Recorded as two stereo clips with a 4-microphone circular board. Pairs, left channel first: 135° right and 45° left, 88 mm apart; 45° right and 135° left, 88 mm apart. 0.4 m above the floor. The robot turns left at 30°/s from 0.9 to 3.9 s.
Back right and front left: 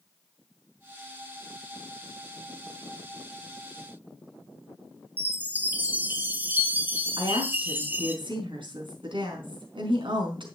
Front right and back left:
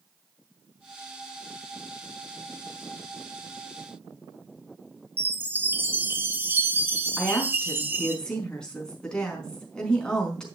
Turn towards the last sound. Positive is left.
turn(degrees=35)